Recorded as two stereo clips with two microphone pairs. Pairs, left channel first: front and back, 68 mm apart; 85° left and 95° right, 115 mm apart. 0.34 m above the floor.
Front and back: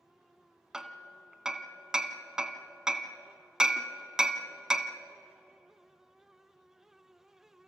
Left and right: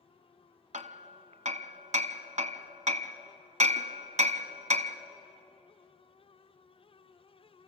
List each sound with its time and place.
0.7 s hammering: 100° right, 0.9 m